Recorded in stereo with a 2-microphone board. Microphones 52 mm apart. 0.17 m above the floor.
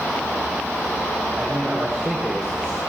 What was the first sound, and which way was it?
A man speaking, 10° left (ahead or behind).